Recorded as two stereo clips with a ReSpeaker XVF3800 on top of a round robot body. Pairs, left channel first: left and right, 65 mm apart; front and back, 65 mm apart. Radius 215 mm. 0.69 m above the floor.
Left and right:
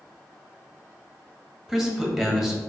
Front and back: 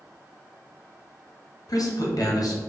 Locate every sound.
1.7 s a man speaking: 5° right, 1.1 m